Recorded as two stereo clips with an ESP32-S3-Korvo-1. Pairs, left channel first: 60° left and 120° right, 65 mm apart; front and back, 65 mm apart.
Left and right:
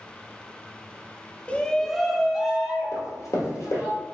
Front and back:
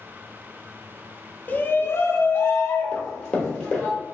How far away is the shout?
About 0.5 m.